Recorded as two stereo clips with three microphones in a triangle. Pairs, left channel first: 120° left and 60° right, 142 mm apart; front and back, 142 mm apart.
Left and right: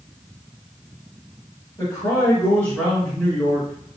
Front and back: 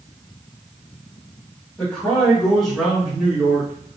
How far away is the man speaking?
About 1.7 m.